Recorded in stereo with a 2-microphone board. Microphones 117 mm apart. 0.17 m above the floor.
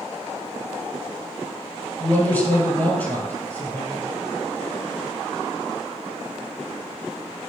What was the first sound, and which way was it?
A man speaking, 15° left (ahead or behind).